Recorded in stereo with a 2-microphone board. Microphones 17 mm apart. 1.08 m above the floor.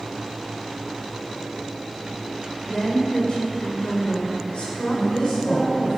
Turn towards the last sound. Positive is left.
turn(degrees=60)  # may be behind; listen again after turning